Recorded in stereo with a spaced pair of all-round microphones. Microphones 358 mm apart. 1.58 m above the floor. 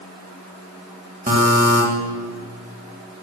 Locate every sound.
1.3 s a buzzer: 20° right (ahead or behind), 1.7 m